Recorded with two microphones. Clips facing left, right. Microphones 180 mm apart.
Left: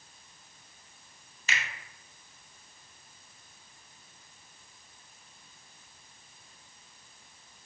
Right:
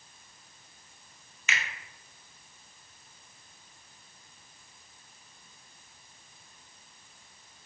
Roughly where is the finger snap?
Left.